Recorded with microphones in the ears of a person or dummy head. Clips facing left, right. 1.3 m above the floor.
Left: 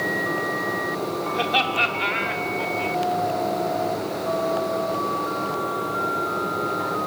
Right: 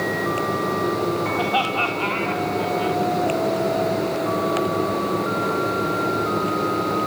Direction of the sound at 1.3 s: 35° left (ahead or behind).